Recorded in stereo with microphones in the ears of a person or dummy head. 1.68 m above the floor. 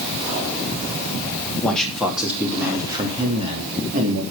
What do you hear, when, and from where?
1.6 s a man speaking: 5° left (ahead or behind), 3 m; by 4.2 s 45° right (ahead or behind), 3.5 m